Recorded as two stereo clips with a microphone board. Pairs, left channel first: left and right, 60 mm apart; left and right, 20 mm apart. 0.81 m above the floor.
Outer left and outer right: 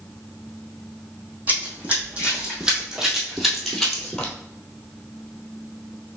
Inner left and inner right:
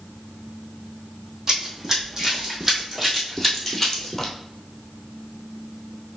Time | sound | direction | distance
1.5 | running footsteps | 30° right (ahead or behind) | 2 m